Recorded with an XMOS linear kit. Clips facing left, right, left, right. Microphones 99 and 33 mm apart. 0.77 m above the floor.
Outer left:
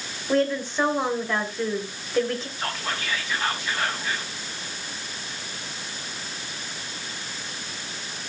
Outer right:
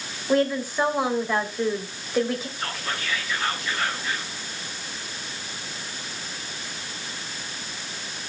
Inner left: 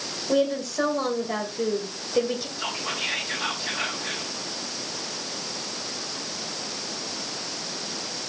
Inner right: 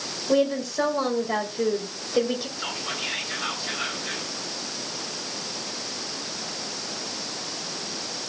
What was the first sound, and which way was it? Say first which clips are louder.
A woman speaking: outer right 1 dB, inner right 1 dB; 10° right (ahead or behind).